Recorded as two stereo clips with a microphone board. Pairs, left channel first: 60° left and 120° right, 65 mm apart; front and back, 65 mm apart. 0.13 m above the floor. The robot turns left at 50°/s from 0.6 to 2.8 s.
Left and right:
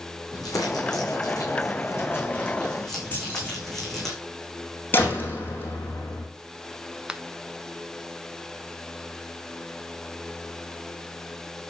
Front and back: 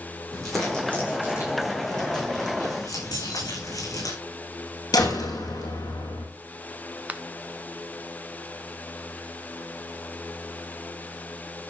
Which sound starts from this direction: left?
Crumpling, at 0.3 s.